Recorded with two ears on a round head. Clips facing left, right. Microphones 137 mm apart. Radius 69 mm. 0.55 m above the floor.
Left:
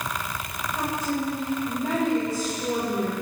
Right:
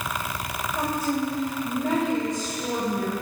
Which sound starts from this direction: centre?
A woman speaking, at 0.8 s.